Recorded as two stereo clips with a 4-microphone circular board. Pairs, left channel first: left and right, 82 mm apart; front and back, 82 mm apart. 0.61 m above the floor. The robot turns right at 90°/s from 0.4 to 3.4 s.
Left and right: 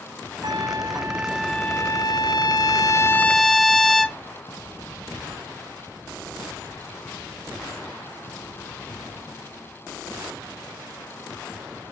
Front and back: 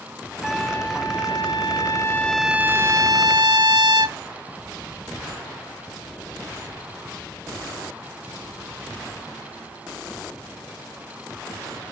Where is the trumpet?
90° right, 0.7 m; by 4.2 s straight behind, 0.7 m.